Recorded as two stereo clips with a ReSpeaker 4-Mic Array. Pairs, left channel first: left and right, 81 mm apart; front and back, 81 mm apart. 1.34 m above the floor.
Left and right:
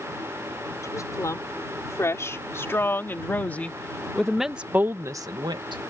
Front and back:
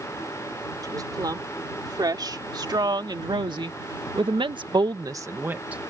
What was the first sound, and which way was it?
A woman speaking, 140° left.